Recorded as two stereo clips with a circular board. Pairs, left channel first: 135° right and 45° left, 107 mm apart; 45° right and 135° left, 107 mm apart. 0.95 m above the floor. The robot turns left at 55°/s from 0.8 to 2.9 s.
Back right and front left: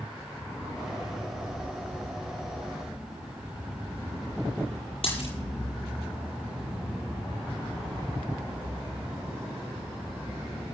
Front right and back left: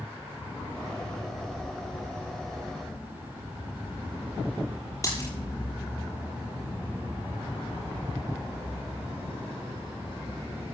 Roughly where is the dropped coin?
Right.